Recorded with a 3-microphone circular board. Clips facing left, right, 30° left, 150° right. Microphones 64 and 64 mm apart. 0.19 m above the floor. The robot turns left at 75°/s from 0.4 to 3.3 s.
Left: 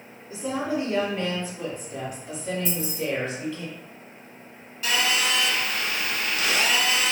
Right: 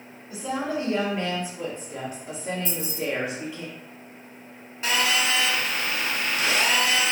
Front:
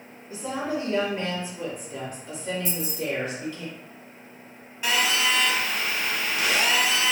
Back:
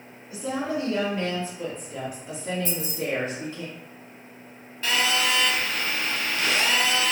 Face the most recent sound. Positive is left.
turn(degrees=-40)